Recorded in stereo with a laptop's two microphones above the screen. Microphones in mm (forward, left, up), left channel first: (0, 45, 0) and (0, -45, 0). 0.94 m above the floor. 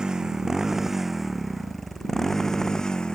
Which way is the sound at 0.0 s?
10° right (ahead or behind).